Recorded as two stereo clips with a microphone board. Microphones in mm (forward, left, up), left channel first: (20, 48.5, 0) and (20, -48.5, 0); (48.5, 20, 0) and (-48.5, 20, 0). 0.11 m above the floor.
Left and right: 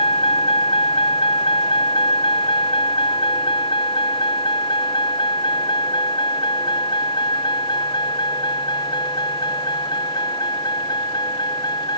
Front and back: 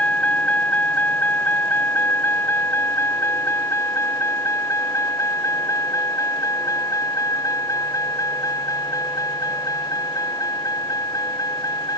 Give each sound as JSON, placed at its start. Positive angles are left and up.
{"t": 0.0, "sound": "a vehicle", "azimuth_deg": 75}